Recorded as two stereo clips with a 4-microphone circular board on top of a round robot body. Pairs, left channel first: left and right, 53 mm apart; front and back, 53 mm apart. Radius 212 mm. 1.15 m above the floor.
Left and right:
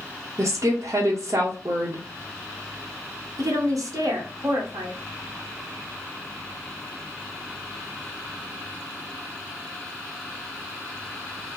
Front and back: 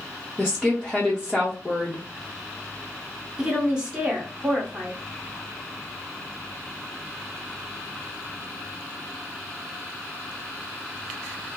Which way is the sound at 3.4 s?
105° right.